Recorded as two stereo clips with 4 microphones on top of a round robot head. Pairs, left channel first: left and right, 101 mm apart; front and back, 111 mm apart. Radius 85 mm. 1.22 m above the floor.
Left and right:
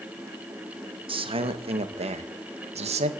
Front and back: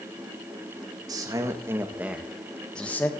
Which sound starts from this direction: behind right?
A man speaking, at 1.1 s.